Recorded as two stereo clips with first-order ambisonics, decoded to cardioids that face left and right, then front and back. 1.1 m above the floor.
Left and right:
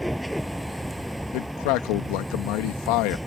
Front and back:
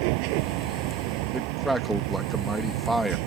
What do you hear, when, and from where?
0.0 s a vehicle: straight behind
1.3 s a man speaking: 95° left